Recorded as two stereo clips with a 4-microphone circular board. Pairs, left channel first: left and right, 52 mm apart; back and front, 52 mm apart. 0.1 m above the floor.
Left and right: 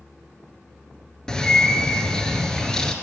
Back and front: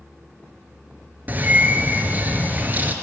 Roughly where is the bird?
Ahead.